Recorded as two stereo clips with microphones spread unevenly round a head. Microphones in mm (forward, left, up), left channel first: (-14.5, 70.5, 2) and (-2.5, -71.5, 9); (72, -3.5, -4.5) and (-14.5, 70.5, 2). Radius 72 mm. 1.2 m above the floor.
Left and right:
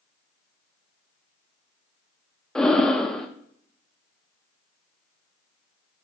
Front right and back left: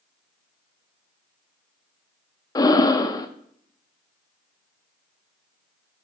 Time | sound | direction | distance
2.5 | breathing | 5° left | 0.7 m